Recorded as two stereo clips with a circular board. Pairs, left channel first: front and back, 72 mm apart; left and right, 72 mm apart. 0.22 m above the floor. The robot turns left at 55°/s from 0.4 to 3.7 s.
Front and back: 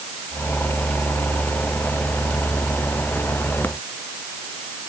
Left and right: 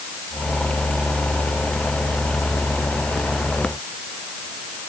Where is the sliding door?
I don't hear a sliding door.